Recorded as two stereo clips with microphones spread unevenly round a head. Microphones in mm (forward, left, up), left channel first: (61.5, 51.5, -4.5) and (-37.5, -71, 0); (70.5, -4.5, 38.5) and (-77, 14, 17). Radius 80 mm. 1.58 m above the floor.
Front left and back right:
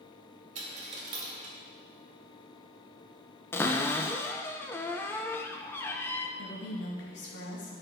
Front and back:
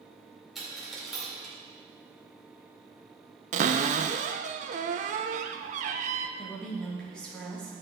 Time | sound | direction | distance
0.6 | a dropped coin | 95° right | 2 m
3.5 | a cupboard door | 130° left | 0.7 m
6.4 | a woman speaking | 80° left | 2.5 m